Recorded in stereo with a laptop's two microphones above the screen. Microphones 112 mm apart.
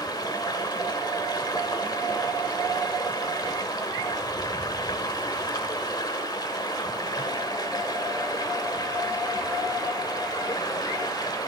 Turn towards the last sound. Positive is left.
turn(degrees=40)  # may be behind; listen again after turning